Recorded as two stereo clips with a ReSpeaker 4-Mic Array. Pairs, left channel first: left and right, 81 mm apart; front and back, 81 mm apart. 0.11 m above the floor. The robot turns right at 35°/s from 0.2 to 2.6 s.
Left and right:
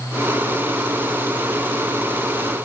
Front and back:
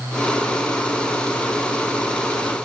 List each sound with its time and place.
Only background noise.